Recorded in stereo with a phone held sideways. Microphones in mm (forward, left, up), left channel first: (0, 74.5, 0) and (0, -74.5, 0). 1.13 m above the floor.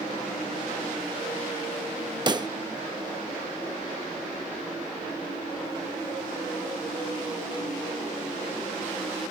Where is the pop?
30° right (ahead or behind).